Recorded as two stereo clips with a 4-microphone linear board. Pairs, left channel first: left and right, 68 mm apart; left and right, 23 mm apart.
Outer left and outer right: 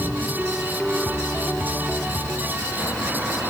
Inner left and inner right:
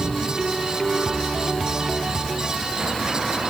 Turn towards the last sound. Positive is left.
No sound to turn to.